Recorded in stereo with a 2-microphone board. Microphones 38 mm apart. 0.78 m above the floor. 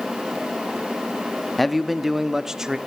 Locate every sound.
1.6 s a man speaking: centre (ahead or behind), 1.0 m; by 2.8 s 15° right (ahead or behind), 1.6 m